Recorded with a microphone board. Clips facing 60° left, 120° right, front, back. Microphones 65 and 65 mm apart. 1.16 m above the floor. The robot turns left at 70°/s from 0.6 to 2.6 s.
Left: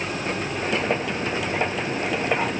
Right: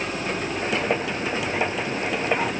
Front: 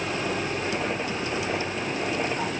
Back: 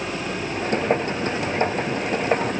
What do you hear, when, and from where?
Only background noise.